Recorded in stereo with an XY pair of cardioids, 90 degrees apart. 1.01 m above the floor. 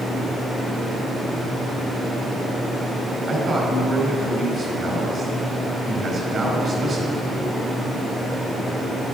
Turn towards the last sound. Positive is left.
turn(degrees=-45)